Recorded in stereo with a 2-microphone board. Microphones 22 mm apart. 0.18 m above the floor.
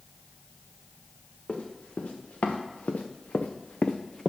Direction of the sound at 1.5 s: 75° left (ahead or behind).